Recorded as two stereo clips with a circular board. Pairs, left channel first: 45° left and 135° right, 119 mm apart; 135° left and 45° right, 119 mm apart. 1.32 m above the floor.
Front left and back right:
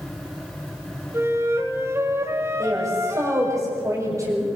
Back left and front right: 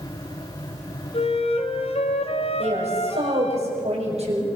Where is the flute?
160° left, 2.5 m.